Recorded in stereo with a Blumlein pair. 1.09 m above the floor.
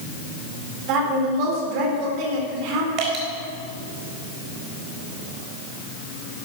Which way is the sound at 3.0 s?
35° right.